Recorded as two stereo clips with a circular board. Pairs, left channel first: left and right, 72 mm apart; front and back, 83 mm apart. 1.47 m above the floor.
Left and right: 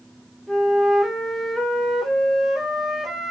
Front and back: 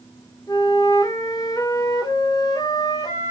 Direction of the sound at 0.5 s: Straight ahead.